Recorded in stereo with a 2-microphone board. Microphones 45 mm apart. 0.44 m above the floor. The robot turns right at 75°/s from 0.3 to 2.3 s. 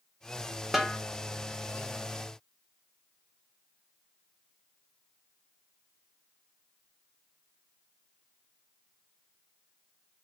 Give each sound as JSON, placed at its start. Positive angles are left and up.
{"t": 0.7, "sound": "a snare drum", "side_deg": -5, "distance_m": 0.7}